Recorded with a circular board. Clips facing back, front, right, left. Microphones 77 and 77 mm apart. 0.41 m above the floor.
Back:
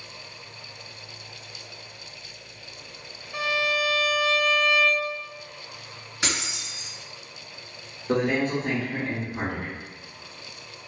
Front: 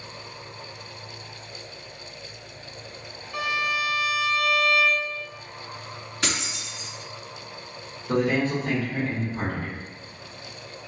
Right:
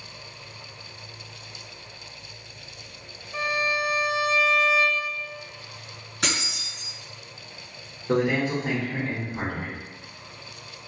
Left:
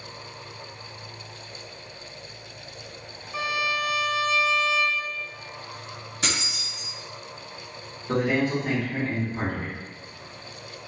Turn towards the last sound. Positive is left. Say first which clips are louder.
# front 1 dB, right 1 dB
turn(degrees=-140)